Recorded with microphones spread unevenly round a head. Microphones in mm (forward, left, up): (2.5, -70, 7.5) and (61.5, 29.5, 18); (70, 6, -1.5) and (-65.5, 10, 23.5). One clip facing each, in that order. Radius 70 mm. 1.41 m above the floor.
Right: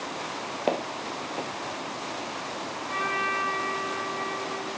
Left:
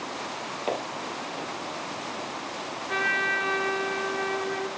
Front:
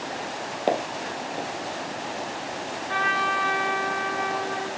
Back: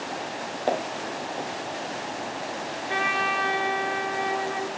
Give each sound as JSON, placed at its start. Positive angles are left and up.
{"t": 0.7, "sound": "footsteps", "azimuth_deg": -75, "distance_m": 1.8}
{"t": 2.9, "sound": "a trumpet", "azimuth_deg": 105, "distance_m": 1.0}